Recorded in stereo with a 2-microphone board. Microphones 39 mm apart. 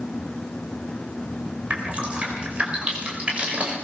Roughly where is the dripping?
Right.